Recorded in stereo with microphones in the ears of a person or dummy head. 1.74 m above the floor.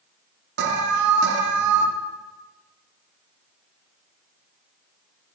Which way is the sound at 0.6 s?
65° right (ahead or behind).